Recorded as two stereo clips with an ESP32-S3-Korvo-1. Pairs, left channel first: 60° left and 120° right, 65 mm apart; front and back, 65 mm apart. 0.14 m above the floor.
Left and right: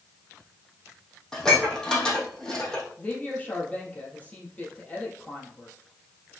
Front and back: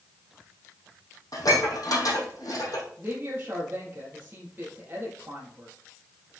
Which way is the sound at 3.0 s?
125° left.